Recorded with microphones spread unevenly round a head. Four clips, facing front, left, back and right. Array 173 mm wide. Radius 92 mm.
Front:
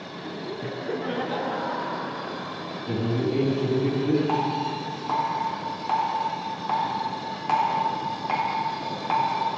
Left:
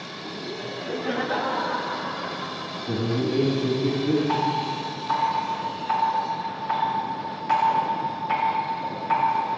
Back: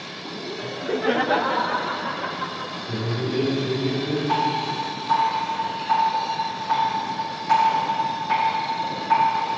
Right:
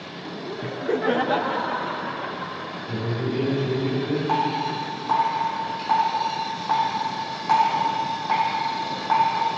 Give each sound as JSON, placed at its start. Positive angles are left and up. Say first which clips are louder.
{"t": 0.6, "sound": "laughter", "louder": "right 7 dB, back 7 dB", "azimuth_deg": -65, "distance_m": 0.6}
{"t": 2.9, "sound": "a man speaking", "louder": "left 3 dB, front 2 dB", "azimuth_deg": 55, "distance_m": 4.0}
{"t": 4.3, "sound": "dripping", "louder": "right 1 dB, back 3 dB", "azimuth_deg": -40, "distance_m": 3.0}